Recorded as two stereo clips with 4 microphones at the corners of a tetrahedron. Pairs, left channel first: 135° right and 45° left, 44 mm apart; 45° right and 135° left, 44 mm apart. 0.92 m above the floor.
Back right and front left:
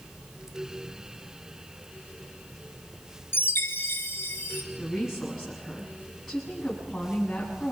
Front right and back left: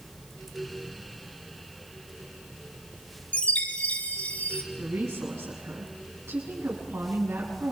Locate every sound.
3.3 s a chime: 95° right, 2.5 m
4.8 s a woman speaking: 140° left, 7.5 m